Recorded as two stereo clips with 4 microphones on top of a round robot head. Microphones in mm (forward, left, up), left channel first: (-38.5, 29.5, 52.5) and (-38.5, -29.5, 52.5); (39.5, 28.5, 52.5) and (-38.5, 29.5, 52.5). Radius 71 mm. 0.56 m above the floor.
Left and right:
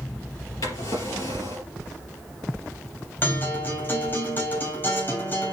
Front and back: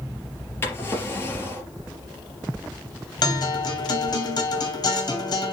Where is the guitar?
35° left, 3 m.